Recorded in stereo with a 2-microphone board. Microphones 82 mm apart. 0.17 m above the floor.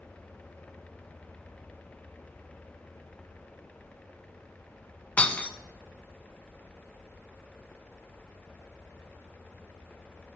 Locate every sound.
5.2 s breaking glass: 15° left (ahead or behind), 0.5 m